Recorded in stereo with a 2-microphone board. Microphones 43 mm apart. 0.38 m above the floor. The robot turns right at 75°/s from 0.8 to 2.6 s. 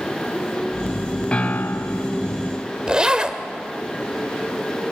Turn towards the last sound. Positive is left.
turn(degrees=-20)  # may be behind; listen again after turning